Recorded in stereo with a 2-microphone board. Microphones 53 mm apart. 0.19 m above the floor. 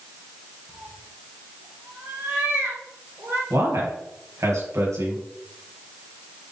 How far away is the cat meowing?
About 3.5 m.